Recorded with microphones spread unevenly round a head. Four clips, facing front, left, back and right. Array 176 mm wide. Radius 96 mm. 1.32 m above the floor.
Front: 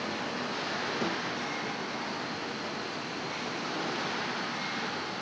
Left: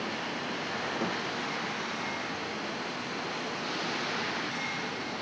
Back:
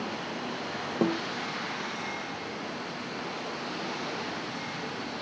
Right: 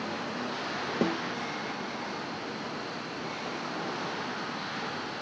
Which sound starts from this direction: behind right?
A snare drum, at 1.0 s.